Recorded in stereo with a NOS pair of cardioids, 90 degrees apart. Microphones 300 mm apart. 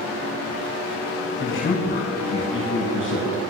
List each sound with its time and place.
1.4 s a man speaking: 35° left, 8.5 m